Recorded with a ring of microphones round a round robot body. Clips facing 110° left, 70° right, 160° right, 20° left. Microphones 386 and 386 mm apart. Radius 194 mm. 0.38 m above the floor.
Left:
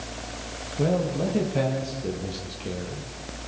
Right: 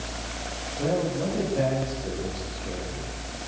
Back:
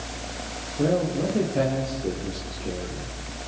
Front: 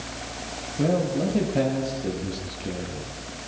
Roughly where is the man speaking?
Left.